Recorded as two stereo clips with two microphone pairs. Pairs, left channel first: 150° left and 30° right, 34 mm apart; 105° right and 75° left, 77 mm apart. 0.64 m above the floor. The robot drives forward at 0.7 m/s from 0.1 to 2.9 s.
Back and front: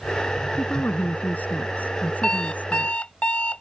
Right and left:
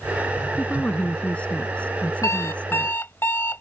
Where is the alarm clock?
150° right; by 3.6 s 160° right.